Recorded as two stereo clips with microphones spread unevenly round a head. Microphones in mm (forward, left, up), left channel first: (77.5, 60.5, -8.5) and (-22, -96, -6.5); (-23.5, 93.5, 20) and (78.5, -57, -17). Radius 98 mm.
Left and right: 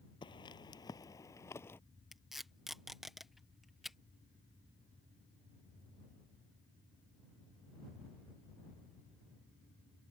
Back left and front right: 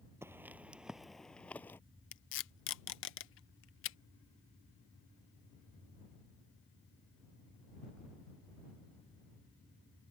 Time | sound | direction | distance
0.2 | footsteps | 30° left | ?
2.1 | tape being pulled | 150° left | ?